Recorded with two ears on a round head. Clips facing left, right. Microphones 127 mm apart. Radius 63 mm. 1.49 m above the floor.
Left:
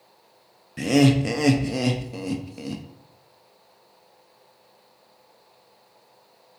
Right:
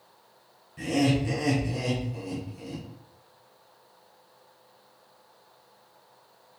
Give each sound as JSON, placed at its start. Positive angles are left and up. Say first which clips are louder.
{"t": 0.8, "sound": "laughter", "louder": "left 6 dB", "side_deg": 75, "distance_m": 0.6}